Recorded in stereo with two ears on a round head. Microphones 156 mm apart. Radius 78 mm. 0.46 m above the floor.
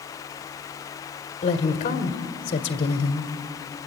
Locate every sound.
1.4 s a woman speaking: 40° left (ahead or behind), 1.6 m